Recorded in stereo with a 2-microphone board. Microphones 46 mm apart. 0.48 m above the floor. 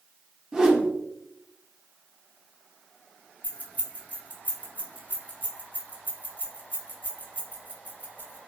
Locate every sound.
0.5 s a whoosh: 15° right (ahead or behind), 0.5 m
3.4 s keys jangling: 35° left (ahead or behind), 0.8 m